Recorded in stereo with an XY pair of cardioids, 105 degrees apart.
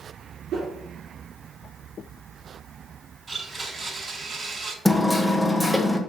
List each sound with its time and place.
0.5 s a whoosh: 65° right, 3 m
3.3 s a blender: 25° right, 4.5 m
4.8 s hammering: 10° left, 1.2 m